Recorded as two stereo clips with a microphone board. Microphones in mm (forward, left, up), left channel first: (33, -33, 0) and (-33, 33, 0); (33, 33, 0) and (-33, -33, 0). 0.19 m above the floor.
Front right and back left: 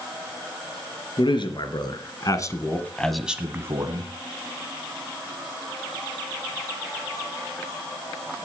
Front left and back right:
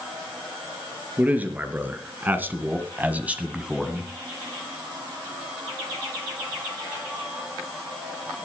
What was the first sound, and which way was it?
A man speaking, 65° right.